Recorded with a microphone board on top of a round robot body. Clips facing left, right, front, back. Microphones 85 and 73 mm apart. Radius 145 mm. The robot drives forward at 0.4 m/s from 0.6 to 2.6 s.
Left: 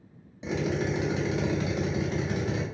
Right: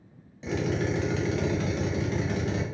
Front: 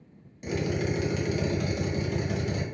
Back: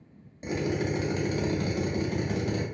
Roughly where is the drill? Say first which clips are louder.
Even, even; behind left.